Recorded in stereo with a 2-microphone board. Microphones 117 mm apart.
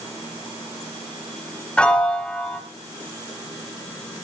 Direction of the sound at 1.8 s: 10° left (ahead or behind).